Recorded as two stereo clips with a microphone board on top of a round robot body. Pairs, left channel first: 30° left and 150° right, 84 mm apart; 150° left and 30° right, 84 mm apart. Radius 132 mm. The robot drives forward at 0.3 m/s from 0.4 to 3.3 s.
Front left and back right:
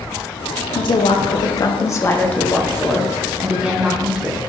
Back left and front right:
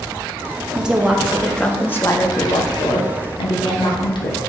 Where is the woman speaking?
50° left, 0.6 m; by 4.4 s 130° left, 0.6 m.